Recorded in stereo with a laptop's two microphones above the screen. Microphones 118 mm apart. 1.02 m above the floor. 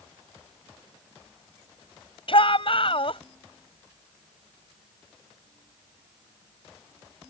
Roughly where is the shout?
Left.